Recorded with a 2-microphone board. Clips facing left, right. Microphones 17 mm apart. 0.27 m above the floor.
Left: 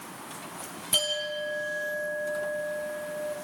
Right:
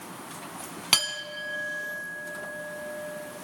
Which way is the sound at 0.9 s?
60° right (ahead or behind).